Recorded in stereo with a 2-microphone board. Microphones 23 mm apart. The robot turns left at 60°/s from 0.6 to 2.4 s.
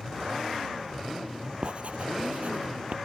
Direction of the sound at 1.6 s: 45° right (ahead or behind).